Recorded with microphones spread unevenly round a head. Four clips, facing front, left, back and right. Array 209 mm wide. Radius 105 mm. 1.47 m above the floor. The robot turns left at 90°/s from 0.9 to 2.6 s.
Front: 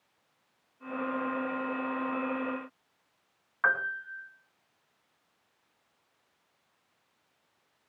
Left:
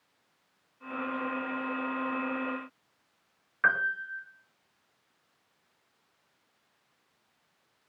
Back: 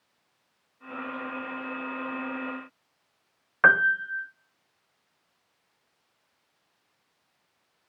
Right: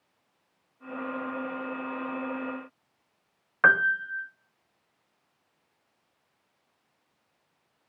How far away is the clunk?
I don't hear a clunk.